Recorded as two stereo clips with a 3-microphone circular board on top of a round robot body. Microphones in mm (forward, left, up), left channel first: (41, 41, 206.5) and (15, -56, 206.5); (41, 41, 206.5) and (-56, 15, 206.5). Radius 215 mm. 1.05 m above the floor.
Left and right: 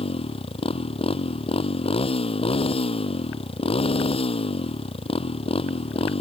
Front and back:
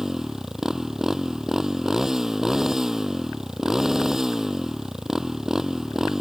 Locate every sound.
0.0 s a motorcycle: 110° left